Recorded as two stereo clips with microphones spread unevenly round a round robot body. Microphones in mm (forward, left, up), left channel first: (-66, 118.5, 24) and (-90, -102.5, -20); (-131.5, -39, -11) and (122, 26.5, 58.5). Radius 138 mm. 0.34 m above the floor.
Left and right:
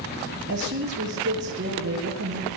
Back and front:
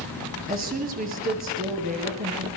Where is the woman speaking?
45° right, 7.5 m.